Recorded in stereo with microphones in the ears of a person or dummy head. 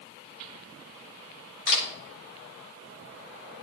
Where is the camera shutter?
65° left (ahead or behind), 7 m.